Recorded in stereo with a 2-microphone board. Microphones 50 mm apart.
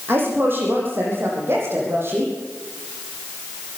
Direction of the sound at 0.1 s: 50° right (ahead or behind).